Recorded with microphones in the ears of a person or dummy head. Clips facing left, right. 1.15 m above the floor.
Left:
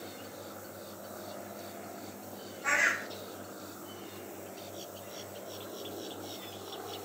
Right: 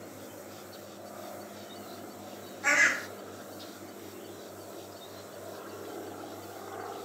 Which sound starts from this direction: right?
A bird, at 2.6 s.